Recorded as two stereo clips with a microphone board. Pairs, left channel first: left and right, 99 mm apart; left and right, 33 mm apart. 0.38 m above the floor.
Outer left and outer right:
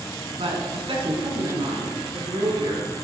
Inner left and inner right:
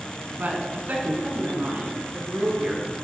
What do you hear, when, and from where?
0.4 s a woman speaking: 70° right (ahead or behind), 3 m; by 2.9 s 55° right (ahead or behind), 5 m